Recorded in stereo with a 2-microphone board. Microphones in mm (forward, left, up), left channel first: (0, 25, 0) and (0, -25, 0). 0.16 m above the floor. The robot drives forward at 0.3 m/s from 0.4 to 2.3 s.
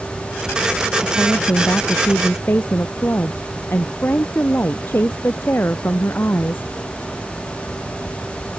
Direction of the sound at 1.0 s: 45° left (ahead or behind).